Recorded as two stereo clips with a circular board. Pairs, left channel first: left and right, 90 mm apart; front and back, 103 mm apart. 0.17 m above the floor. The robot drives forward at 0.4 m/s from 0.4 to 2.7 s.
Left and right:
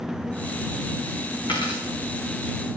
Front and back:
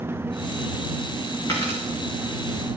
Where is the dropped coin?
60° left, 6.5 m.